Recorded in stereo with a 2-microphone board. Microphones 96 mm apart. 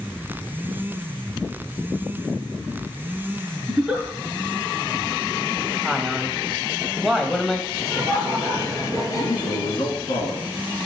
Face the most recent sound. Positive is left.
turn(degrees=65)  # may be behind; listen again after turning